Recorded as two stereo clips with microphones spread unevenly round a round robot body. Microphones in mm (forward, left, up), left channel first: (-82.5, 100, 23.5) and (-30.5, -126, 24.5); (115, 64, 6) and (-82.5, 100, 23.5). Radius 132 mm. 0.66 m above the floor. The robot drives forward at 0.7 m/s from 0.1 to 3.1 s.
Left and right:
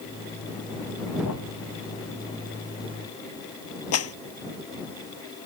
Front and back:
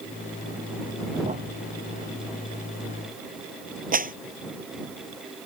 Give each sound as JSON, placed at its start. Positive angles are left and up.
{"t": 1.2, "sound": "a thud", "azimuth_deg": 115}
{"t": 3.9, "sound": "a clap", "azimuth_deg": 125}